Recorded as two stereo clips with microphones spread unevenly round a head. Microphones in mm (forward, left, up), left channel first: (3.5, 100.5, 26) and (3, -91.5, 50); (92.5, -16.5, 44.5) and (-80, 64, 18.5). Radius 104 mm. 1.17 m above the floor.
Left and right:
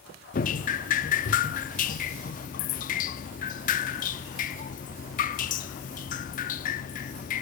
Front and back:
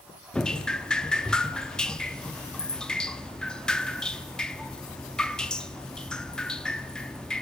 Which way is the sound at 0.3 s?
50° left.